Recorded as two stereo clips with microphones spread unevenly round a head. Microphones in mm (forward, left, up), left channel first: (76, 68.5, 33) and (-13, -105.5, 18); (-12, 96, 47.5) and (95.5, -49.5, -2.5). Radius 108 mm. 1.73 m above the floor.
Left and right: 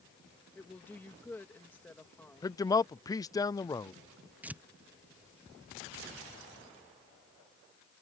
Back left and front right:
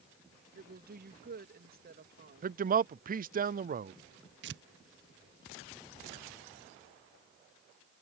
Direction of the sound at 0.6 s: 20° right.